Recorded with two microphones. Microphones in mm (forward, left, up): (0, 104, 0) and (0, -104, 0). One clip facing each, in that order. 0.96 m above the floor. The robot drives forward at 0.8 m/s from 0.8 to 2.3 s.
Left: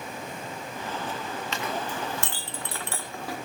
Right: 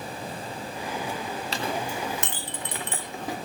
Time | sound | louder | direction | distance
1.5 | a clink | right 2 dB | 35° right (ahead or behind) | 0.7 m